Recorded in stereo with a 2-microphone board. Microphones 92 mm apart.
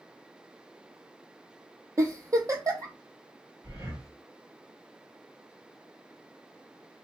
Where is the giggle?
40° right (ahead or behind), 0.6 m.